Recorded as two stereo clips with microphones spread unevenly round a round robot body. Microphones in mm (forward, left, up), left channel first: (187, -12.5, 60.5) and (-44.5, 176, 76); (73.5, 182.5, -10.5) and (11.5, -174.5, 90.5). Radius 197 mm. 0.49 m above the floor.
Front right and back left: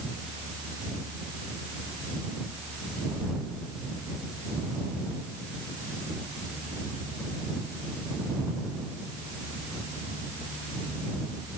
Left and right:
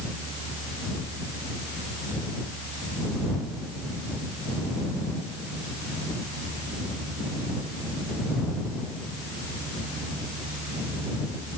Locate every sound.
Only background noise.